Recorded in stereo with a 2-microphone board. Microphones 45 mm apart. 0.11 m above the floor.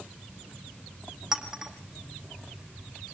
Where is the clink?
10° right (ahead or behind), 3 m.